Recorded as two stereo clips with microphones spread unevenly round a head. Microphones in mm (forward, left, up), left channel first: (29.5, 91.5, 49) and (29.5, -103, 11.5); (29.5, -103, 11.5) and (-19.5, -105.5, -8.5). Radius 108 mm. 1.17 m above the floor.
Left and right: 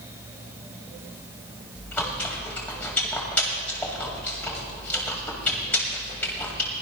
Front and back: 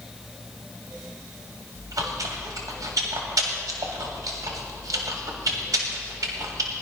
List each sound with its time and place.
1.8 s chewing: 165° left, 1.9 m